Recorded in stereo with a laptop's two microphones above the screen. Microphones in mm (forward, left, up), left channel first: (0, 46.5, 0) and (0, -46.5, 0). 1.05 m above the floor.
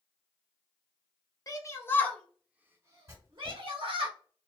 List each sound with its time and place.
1.5 s a shout: 40° left (ahead or behind), 0.7 m; by 4.1 s 65° right (ahead or behind), 1.0 m
3.1 s writing: 30° right (ahead or behind), 1.5 m